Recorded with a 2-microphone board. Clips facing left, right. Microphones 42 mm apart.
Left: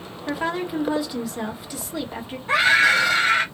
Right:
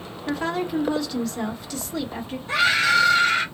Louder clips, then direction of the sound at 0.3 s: Even; 10° left (ahead or behind).